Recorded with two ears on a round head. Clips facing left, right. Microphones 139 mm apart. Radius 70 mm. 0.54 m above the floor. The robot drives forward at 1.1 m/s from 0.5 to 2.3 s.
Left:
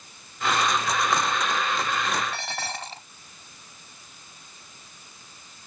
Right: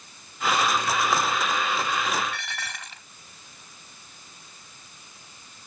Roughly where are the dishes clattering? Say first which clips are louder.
Left 4 dB; left.